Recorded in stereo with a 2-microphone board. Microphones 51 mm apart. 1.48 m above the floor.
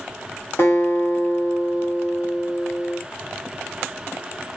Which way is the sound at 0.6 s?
50° left (ahead or behind).